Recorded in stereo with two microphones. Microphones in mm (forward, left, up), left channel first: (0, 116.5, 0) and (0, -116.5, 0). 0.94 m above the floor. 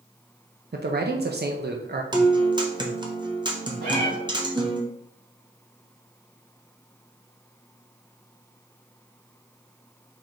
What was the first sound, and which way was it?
A man speaking, 45° right (ahead or behind).